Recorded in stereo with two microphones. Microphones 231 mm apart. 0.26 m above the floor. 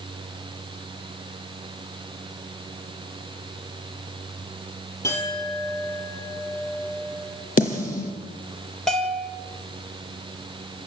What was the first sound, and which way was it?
A clink, 10° left (ahead or behind).